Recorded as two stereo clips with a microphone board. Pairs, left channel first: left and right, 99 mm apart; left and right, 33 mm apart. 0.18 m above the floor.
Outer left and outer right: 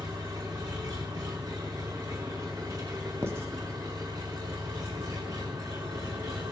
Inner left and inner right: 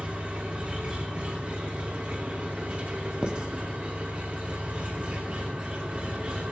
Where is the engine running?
45° right (ahead or behind), 5 m.